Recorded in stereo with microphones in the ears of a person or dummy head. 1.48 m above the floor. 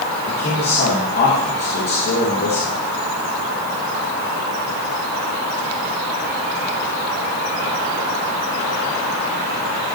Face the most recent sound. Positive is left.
turn(degrees=55)  # may be behind; listen again after turning